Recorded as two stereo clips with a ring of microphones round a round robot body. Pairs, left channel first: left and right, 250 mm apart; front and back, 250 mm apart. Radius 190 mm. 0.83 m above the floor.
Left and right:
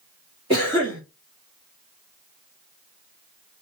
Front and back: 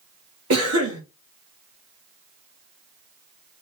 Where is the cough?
165° right, 2.0 m.